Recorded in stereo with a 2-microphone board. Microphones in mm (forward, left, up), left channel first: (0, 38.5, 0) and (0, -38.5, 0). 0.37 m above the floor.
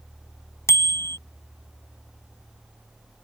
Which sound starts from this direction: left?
A bicycle bell, at 0.7 s.